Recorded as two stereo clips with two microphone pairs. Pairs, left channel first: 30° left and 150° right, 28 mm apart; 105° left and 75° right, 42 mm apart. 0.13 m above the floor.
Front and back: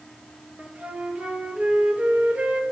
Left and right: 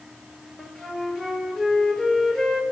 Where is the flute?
175° right, 1.8 m.